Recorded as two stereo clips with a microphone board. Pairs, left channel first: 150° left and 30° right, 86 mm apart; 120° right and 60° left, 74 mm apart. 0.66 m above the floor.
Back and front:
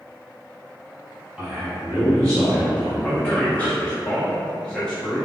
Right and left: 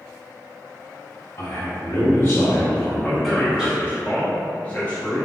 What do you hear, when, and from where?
1.4 s a man speaking: 125° right, 1.7 m; by 3.7 s 110° left, 1.2 m
3.0 s a man speaking: 145° right, 0.6 m